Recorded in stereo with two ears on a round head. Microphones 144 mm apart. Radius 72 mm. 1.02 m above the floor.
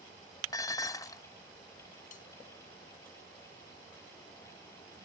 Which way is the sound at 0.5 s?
20° left (ahead or behind).